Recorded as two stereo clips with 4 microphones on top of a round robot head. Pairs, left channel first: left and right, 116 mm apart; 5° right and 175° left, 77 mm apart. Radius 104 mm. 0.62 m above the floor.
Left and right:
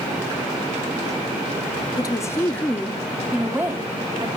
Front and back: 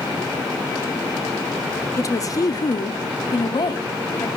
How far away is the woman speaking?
About 1.4 m.